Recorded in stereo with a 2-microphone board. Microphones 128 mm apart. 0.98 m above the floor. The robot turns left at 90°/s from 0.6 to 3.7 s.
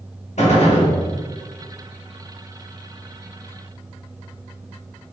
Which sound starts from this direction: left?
A gunshot, at 0.4 s.